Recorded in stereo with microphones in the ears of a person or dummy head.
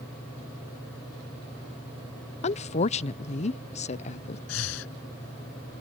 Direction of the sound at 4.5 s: 80° left.